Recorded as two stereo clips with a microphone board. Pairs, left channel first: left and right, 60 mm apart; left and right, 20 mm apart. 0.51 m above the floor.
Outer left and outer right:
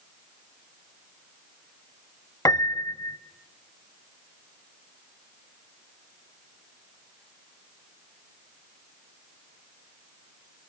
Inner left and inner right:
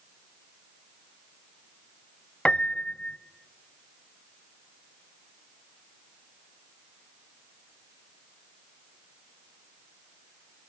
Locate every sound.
2.5 s a piano: 75° left (ahead or behind), 0.7 m